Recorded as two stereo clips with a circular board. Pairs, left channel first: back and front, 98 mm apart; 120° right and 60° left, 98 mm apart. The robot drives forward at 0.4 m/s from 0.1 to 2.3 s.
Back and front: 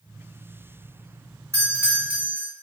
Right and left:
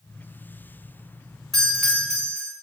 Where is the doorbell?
30° right, 1.6 m; by 2.5 s 40° right, 1.5 m.